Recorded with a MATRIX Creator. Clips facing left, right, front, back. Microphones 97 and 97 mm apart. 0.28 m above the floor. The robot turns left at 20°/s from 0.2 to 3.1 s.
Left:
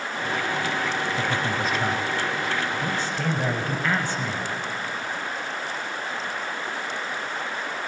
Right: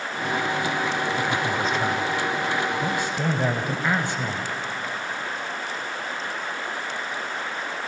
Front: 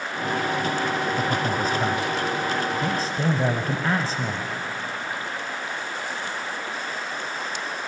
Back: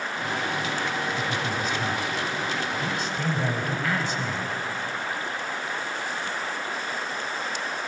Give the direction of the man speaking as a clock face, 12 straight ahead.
12 o'clock.